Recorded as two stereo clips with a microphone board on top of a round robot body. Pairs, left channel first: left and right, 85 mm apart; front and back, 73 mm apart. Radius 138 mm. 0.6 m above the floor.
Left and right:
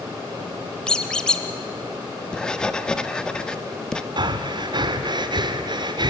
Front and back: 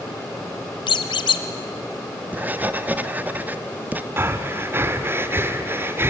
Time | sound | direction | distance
0.9 | a squeak | 10° left | 0.8 m
2.3 | writing | 160° left | 1.1 m
4.2 | breathing | 120° right | 1.3 m